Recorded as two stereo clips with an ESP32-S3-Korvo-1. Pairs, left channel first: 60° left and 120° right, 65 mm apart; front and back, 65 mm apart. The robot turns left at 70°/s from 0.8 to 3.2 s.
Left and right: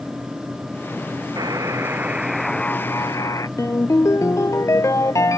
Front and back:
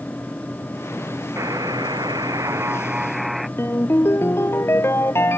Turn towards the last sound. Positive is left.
turn(degrees=40)